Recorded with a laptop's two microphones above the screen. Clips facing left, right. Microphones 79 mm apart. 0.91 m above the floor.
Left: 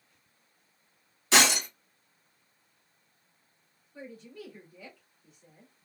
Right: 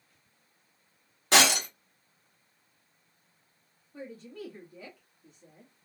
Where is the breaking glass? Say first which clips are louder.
Right 1 dB; 50° right (ahead or behind), 2.0 m.